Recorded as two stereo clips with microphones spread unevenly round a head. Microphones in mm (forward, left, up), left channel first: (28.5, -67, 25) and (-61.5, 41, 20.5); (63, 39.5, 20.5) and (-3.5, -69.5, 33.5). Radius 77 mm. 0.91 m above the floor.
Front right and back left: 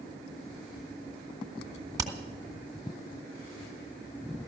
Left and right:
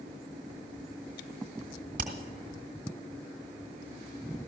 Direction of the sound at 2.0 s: 160° right.